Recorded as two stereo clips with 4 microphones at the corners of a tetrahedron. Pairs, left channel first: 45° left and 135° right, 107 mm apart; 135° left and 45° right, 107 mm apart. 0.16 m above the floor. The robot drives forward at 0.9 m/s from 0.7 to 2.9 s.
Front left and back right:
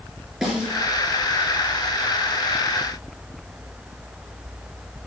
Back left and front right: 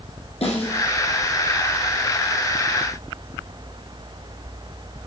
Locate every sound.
0.4 s a snare drum: 135° left, 4 m; by 0.7 s 140° left, 4 m